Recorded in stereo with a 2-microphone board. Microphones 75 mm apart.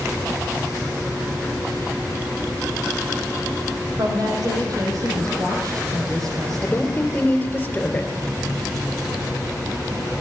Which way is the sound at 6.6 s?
25° left (ahead or behind).